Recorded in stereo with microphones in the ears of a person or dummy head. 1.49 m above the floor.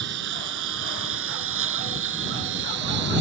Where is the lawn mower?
75° right (ahead or behind); by 3.2 s 65° right (ahead or behind).